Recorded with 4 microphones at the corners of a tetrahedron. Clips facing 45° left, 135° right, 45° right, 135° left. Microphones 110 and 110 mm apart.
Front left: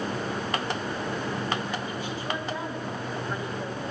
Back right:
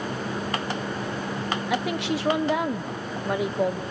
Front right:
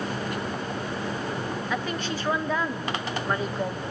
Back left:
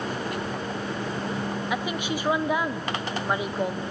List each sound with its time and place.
1.7 s a woman speaking: 150° right, 1.1 m